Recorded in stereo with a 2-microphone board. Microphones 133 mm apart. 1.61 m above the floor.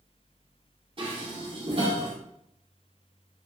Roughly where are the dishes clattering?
Right.